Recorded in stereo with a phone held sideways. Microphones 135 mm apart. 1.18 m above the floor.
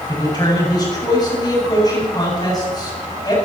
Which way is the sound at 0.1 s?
30° left (ahead or behind).